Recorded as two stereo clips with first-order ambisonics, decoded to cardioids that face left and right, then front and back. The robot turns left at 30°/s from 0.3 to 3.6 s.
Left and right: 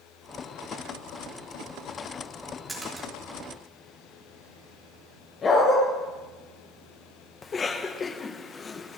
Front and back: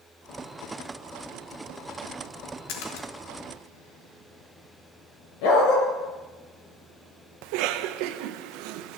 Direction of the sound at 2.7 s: 5° right.